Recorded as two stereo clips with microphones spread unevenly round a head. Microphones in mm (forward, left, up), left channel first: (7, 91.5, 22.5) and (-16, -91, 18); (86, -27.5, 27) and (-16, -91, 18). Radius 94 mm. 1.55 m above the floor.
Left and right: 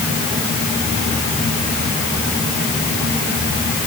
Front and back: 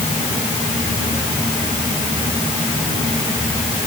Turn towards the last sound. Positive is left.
No sound to turn to.